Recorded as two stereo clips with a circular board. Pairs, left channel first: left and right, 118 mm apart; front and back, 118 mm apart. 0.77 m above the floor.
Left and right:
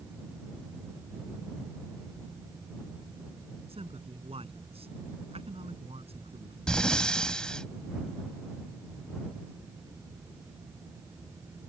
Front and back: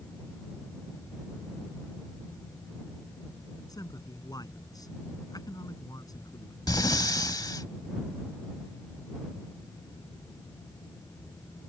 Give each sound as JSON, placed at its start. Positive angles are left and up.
{"t": 3.7, "sound": "a man speaking", "azimuth_deg": -55}
{"t": 6.7, "sound": "breathing", "azimuth_deg": 15}